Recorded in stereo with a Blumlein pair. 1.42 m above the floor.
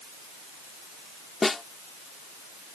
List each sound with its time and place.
1.4 s a snare drum: 10° left